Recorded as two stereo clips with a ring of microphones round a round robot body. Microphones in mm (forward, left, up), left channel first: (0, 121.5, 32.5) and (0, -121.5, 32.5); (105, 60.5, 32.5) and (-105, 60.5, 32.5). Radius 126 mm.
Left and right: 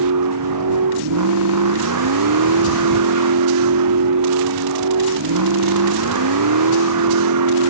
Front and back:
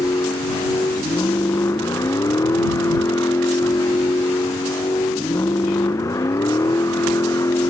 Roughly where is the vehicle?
Right.